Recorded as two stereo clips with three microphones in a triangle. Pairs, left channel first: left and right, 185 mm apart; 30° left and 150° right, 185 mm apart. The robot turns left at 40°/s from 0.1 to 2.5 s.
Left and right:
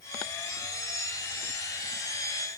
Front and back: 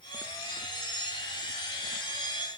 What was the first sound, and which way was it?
Only background noise.